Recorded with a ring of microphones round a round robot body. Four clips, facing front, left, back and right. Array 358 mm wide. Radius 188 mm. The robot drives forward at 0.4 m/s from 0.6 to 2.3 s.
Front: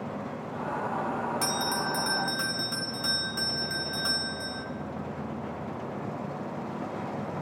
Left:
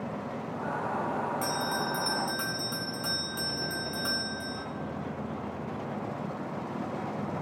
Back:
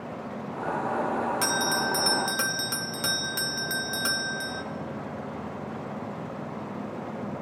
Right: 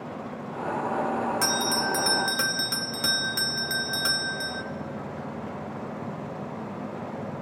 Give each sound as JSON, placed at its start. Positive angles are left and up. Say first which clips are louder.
{"t": 1.4, "sound": "a bell", "louder": "right 4 dB, back 3 dB", "azimuth_deg": -100, "distance_m": 0.5}